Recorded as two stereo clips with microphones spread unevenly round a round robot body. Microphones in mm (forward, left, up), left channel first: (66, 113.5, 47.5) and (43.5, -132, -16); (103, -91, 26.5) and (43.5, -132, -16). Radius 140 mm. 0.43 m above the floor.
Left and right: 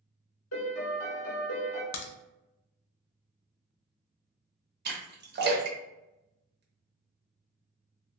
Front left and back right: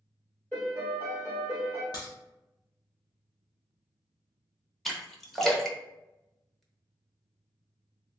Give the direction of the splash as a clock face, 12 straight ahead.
2 o'clock.